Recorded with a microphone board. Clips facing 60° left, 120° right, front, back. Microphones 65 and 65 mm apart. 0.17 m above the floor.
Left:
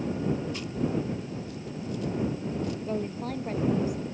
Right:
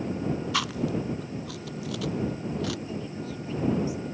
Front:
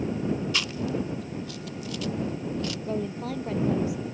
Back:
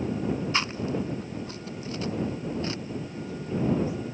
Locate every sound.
0.5 s chewing: 120° right
2.9 s a woman speaking: 20° left